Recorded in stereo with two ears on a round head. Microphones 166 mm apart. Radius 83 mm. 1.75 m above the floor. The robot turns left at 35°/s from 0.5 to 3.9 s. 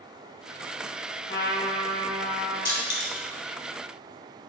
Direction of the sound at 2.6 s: 20° left (ahead or behind).